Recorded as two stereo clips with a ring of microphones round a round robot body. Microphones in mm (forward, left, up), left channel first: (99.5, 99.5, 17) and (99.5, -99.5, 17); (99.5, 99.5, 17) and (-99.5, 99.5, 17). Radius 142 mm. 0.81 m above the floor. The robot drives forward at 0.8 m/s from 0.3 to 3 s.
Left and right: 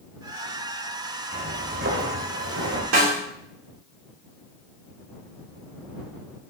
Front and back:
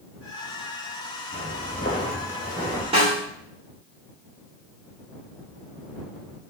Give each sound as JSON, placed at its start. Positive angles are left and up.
{"t": 1.3, "sound": "footsteps", "azimuth_deg": -50, "distance_m": 3.5}
{"t": 2.9, "sound": "a snare drum", "azimuth_deg": -110, "distance_m": 2.5}